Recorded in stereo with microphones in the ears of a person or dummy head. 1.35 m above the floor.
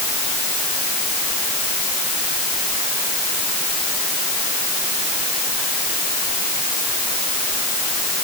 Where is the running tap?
I don't hear a running tap.